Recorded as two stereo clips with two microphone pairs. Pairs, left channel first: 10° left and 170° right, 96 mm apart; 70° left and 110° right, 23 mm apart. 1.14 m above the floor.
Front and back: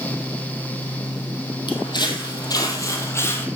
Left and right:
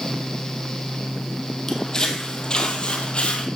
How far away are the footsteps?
About 1.7 m.